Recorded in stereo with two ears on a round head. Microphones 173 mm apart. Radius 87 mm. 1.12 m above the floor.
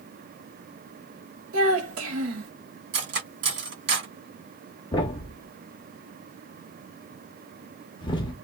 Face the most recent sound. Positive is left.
turn(degrees=25)  # may be behind; listen again after turning